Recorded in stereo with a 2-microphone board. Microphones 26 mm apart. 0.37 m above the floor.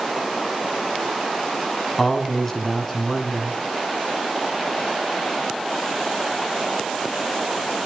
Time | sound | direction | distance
2.0 | a man speaking | 10° left (ahead or behind) | 3.5 m